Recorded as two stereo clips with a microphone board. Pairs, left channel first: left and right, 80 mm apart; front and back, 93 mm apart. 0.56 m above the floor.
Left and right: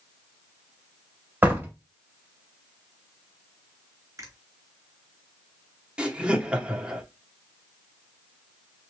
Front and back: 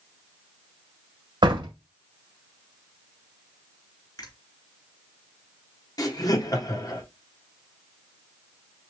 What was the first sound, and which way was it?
A door slam, 155° right.